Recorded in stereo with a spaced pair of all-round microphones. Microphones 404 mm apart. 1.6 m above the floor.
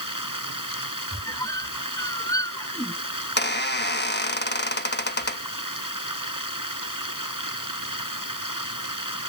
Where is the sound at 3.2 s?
25° left (ahead or behind).